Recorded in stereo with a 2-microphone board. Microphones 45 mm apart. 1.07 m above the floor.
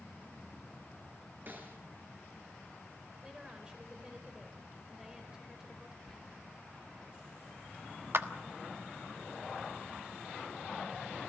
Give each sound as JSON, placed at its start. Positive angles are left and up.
{"t": 1.5, "sound": "a snare drum", "side_deg": -45, "distance_m": 3.5}
{"t": 3.2, "sound": "a woman speaking", "side_deg": -20, "distance_m": 4.5}
{"t": 6.1, "sound": "whispering", "side_deg": 5, "distance_m": 1.4}
{"t": 8.1, "sound": "a clap", "side_deg": -60, "distance_m": 1.2}